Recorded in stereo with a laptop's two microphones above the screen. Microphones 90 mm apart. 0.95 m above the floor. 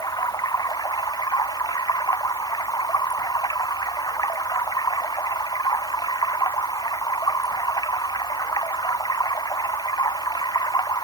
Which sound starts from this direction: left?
Running water, at 0.0 s.